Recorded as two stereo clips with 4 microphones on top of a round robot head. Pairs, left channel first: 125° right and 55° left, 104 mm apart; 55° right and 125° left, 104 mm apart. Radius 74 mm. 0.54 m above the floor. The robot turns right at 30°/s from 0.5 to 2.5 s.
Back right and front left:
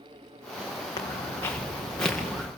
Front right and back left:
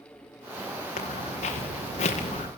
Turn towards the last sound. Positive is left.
turn(degrees=-25)